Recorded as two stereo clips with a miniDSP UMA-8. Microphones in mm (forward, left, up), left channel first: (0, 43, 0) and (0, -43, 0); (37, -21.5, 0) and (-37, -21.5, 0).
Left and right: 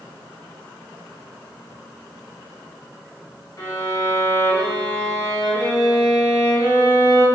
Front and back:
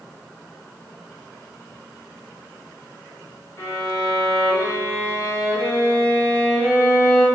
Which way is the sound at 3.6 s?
45° left.